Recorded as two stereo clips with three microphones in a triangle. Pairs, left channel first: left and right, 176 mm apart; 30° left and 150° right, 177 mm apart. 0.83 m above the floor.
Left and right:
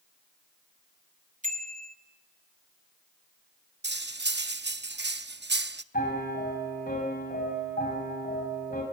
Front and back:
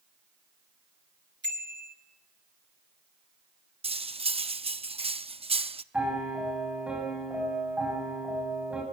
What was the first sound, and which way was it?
A bicycle bell, 135° right.